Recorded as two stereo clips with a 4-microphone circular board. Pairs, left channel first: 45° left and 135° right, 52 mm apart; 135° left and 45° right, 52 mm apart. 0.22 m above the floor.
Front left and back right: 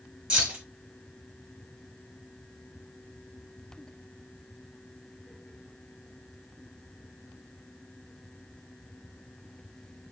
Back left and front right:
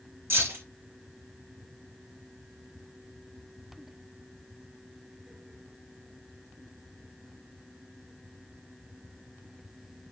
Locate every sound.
0.3 s keys jangling: 70° right, 1.6 m